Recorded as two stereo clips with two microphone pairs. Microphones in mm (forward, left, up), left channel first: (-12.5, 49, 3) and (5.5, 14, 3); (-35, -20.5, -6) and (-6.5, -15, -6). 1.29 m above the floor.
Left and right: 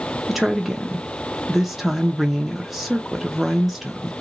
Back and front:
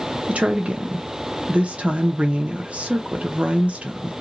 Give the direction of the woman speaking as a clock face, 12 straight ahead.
11 o'clock.